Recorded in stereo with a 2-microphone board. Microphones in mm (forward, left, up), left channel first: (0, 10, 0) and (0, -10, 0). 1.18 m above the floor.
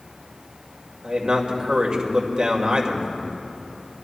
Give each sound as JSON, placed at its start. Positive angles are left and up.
{"t": 1.0, "sound": "a man speaking", "side_deg": -45, "distance_m": 2.0}